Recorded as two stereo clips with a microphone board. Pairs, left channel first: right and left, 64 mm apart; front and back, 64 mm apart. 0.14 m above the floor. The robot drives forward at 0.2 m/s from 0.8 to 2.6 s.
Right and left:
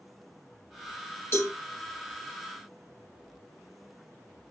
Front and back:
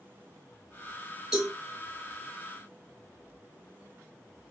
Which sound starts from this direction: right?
A cowbell, at 1.3 s.